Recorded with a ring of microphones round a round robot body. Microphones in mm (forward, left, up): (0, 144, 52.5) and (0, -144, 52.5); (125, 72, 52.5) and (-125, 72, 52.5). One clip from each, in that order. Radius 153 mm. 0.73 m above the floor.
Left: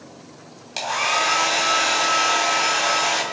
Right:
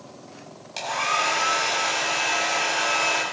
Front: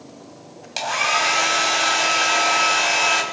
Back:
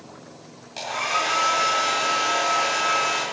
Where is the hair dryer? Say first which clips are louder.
Left 3 dB, front 5 dB; 10° left, 3 m.